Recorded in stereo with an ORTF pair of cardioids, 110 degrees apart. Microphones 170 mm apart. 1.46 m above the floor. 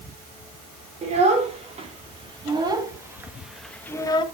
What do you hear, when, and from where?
1.0 s a child speaking: 40° right, 4 m; by 4.2 s 30° left, 1.4 m